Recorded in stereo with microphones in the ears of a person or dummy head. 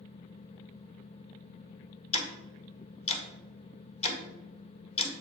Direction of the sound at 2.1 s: 35° left (ahead or behind).